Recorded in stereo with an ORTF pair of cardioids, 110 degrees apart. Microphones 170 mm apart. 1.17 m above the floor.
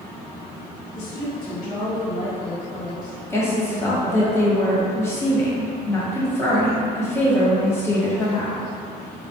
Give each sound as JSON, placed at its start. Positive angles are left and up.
{"t": 0.9, "sound": "a woman speaking", "azimuth_deg": 50, "distance_m": 1.6}
{"t": 3.3, "sound": "a woman speaking", "azimuth_deg": 15, "distance_m": 1.2}